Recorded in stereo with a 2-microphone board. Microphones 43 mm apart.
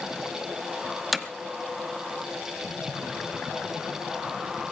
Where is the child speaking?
I don't hear a child speaking.